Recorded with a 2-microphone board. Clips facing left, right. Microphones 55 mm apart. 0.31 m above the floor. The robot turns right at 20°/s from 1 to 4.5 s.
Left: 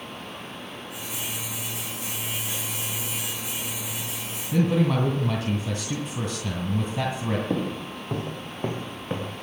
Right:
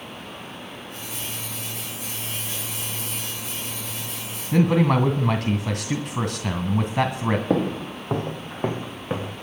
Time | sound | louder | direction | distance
4.5 | a man speaking | right 3 dB | 60° right (ahead or behind) | 2 m
7.5 | footsteps | right 5 dB | 65° right (ahead or behind) | 1.0 m